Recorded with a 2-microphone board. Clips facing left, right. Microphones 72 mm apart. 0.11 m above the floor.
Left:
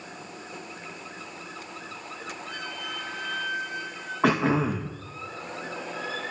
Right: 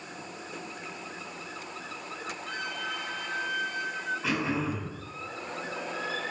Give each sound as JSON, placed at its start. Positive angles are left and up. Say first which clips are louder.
{"t": 2.5, "sound": "a flute", "louder": "right 3 dB", "side_deg": -60, "distance_m": 3.5}
{"t": 4.2, "sound": "throat clearing", "louder": "left 9 dB", "side_deg": 60, "distance_m": 2.5}